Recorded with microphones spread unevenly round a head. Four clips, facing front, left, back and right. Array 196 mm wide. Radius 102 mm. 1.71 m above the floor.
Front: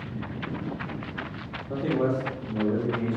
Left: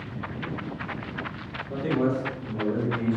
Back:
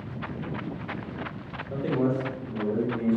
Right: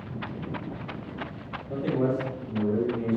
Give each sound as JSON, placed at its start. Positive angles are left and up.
{"t": 1.7, "sound": "a man speaking", "azimuth_deg": -5, "distance_m": 1.4}